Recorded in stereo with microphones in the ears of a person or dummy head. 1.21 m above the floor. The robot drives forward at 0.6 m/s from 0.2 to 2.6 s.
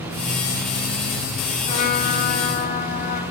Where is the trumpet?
45° left (ahead or behind), 4.5 m; by 3.2 s 55° left (ahead or behind), 4 m.